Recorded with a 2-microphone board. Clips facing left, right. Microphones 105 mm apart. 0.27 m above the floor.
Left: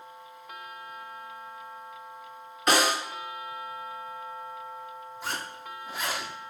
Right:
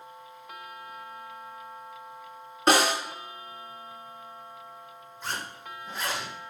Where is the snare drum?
30° right (ahead or behind), 3 m.